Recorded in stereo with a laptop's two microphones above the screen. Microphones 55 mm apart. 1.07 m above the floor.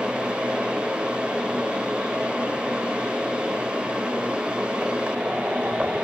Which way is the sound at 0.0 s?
20° right (ahead or behind).